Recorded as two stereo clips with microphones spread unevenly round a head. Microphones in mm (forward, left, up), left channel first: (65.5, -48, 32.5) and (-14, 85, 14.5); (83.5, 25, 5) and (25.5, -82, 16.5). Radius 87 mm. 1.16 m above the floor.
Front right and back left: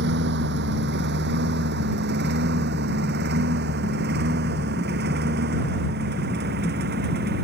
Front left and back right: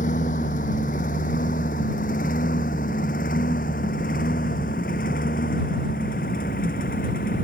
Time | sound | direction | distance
0.0 | a lawn mower | 115° left | ?